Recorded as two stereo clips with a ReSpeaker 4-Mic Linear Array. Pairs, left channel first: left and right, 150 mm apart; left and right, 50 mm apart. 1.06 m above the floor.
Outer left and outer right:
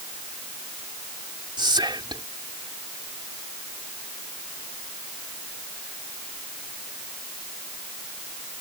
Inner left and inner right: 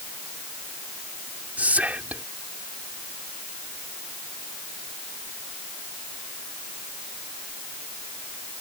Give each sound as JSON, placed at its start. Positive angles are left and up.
{"t": 1.6, "sound": "whispering", "side_deg": -30}